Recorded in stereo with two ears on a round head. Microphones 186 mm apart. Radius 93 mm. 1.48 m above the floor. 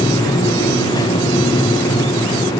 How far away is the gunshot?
No gunshot in this recording.